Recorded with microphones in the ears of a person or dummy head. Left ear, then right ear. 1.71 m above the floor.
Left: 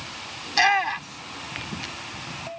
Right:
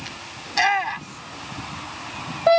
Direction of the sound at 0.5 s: Centre (ahead or behind).